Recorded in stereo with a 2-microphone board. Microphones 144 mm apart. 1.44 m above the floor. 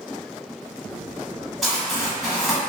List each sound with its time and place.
1.6 s crumpling: centre (ahead or behind), 1.3 m